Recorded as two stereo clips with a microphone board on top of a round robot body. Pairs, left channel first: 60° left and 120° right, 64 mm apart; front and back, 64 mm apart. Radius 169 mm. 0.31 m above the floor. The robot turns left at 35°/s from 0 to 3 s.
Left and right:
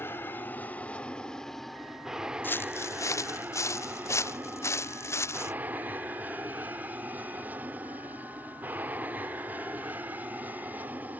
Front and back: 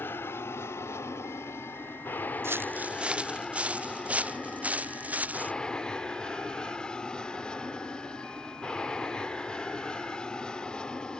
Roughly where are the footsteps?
Behind left.